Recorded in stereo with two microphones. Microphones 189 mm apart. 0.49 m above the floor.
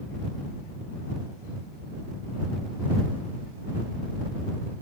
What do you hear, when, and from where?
Only background noise.